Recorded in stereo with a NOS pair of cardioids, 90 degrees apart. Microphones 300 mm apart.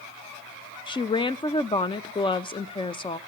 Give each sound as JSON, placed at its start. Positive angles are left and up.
{"t": 0.9, "sound": "a woman speaking", "azimuth_deg": 15, "distance_m": 0.5}